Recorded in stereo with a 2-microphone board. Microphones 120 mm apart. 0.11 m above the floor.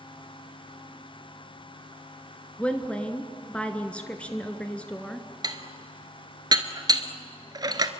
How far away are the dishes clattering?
About 1.1 m.